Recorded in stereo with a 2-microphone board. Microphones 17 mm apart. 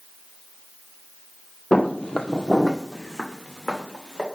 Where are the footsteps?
60° left (ahead or behind), 0.5 m; by 4.2 s centre (ahead or behind), 1.9 m.